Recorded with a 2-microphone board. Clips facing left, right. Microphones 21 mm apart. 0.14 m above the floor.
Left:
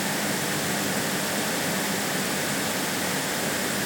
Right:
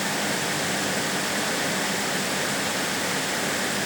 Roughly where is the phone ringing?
No phone ringing in this recording.